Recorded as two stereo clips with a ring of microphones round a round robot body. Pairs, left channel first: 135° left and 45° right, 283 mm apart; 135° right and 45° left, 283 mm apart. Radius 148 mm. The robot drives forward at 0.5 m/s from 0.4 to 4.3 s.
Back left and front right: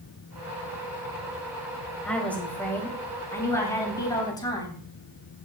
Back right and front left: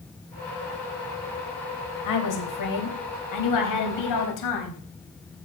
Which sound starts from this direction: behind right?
A woman speaking, at 2.0 s.